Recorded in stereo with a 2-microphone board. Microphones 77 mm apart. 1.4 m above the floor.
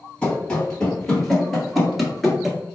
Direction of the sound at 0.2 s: 10° left (ahead or behind).